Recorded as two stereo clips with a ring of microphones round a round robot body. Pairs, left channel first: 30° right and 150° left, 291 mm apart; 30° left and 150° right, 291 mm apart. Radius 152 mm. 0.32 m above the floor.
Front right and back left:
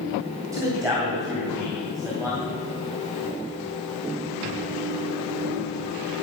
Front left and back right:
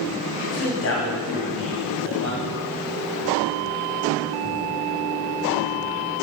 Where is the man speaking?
75° left, 2 m.